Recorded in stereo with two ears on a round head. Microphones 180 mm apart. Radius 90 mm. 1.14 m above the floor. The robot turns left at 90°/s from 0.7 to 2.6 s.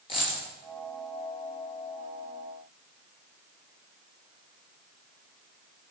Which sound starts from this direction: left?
A dropped coin, at 0.1 s.